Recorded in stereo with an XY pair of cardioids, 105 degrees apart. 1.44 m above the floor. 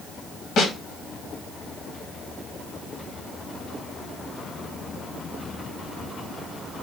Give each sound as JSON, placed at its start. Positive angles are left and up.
{"t": 0.6, "sound": "a snare drum", "azimuth_deg": 65, "distance_m": 1.2}